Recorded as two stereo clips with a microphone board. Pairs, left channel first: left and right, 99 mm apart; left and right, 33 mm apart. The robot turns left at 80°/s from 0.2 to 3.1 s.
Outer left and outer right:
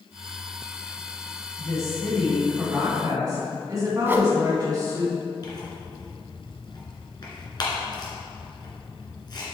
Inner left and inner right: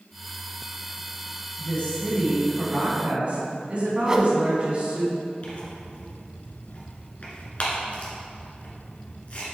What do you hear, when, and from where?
1.6 s a woman speaking: 65° left, 2.5 m; by 5.1 s 60° right, 2.5 m
4.1 s a whoosh: 20° right (ahead or behind), 0.7 m
5.4 s tearing paper: 45° left (ahead or behind), 1.8 m